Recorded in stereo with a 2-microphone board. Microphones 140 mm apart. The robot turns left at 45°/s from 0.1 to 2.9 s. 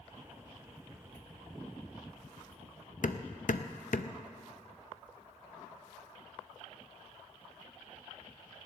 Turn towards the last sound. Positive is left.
turn(degrees=65)  # may be behind; listen again after turning